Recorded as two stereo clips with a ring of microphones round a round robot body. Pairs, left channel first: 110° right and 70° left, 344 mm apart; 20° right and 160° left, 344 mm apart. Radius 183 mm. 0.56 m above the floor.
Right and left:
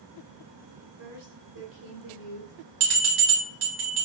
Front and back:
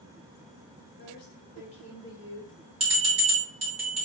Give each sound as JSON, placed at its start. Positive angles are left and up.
{"t": 1.0, "sound": "a woman speaking", "azimuth_deg": 35, "distance_m": 2.0}
{"t": 2.8, "sound": "a bell", "azimuth_deg": 85, "distance_m": 1.9}